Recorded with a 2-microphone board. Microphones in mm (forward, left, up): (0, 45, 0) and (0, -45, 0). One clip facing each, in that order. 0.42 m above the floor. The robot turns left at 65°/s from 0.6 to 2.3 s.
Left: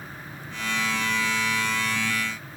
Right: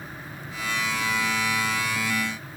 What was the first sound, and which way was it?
Only background noise.